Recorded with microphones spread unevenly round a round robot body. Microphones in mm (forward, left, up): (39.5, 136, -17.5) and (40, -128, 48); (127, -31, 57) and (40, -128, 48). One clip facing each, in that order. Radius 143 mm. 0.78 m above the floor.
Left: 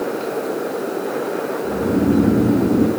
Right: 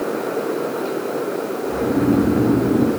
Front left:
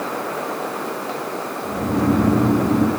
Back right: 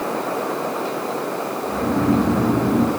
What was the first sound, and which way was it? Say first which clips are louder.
Snoring: even, even; 110° left.